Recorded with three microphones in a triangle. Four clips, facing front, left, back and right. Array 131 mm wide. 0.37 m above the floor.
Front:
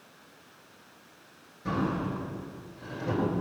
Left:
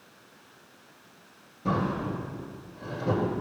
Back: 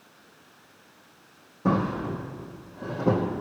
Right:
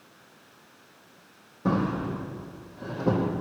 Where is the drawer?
155° right, 5.5 m.